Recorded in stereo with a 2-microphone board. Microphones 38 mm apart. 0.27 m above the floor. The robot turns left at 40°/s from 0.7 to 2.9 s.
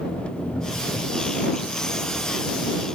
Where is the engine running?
30° left; by 3.0 s 60° right.